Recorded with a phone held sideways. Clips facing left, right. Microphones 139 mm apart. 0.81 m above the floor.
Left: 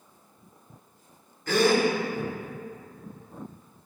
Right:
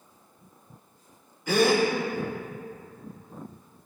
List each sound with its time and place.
1.5 s a gasp: 10° right (ahead or behind), 1.8 m